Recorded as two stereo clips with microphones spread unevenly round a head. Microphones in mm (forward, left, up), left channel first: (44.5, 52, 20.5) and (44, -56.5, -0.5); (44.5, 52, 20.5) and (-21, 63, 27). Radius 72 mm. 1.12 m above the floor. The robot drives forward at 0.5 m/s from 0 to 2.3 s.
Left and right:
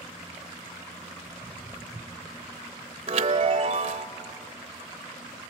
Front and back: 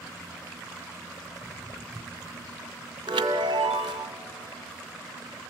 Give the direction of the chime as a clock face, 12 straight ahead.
5 o'clock.